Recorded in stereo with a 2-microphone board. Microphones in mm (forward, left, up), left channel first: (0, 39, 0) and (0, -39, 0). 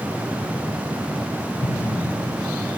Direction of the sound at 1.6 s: 80° left.